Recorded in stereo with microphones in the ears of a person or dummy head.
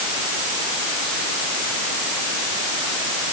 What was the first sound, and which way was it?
Only background noise.